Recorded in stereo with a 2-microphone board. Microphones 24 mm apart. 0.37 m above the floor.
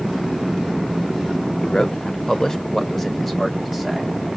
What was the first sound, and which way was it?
A man speaking, 35° left (ahead or behind).